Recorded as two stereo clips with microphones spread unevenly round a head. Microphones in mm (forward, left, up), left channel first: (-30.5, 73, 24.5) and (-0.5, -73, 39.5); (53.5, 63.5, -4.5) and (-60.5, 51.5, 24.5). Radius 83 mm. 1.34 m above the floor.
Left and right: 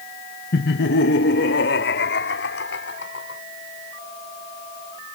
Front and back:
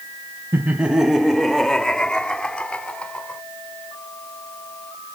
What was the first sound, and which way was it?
Laughter, 115° left.